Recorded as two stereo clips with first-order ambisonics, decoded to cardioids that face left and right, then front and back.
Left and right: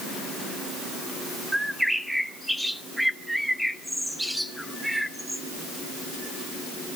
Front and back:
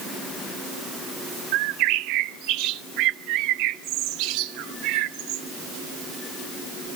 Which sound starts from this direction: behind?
A bird, at 1.5 s.